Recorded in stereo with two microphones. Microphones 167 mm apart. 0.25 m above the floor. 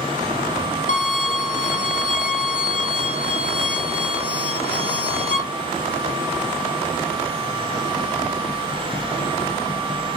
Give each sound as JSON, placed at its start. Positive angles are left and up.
{"t": 0.9, "sound": "a violin", "side_deg": 60, "distance_m": 0.8}